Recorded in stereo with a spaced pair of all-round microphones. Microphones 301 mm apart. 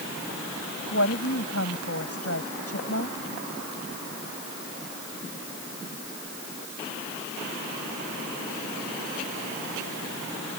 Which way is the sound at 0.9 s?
50° left (ahead or behind).